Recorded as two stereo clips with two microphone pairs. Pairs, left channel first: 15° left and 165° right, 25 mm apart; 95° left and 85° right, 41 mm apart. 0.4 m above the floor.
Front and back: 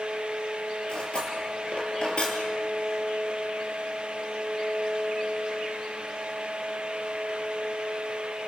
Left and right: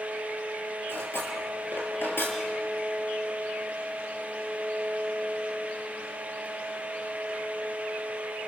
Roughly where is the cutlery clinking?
Ahead left.